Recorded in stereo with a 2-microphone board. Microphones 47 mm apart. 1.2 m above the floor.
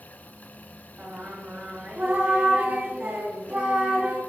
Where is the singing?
30° right (ahead or behind), 2 m.